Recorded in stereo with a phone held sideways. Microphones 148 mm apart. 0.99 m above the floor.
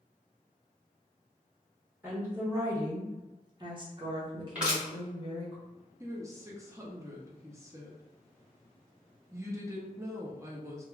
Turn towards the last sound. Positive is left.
turn(degrees=-20)  # may be behind; listen again after turning